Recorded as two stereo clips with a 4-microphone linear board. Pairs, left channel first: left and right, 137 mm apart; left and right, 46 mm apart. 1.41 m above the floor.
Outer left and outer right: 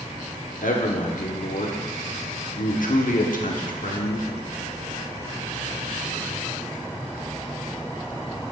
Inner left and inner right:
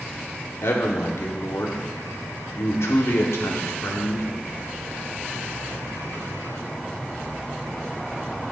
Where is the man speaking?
75° left (ahead or behind), 1.0 m.